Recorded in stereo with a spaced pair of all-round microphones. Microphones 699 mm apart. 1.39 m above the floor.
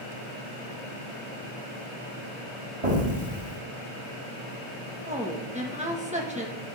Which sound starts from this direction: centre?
A woman speaking, at 5.1 s.